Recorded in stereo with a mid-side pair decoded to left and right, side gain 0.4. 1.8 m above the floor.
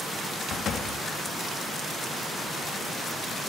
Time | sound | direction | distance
0.5 | a door slam | 65° left | 2.5 m